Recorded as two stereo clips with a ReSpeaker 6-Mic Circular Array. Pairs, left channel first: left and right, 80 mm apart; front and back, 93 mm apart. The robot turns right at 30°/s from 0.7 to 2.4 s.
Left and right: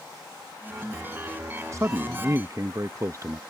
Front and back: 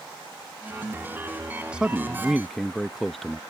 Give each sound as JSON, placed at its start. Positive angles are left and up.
{"t": 1.7, "sound": "a man speaking", "azimuth_deg": -110}